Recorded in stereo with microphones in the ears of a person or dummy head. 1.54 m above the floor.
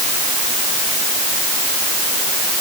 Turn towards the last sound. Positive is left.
No sound to turn to.